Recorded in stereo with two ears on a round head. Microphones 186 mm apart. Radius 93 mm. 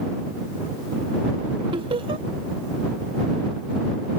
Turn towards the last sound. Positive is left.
turn(degrees=-25)  # may be behind; listen again after turning